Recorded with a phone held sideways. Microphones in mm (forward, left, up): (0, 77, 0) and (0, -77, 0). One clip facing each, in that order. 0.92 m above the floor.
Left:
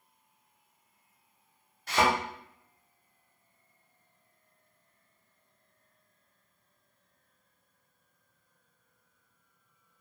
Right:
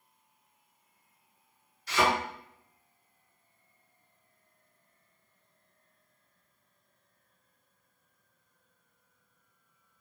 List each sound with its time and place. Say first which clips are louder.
1.9 s a thud: left 1 dB; 50° left (ahead or behind), 0.9 m